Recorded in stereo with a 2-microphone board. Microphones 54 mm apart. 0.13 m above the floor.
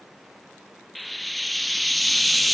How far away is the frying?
About 0.6 m.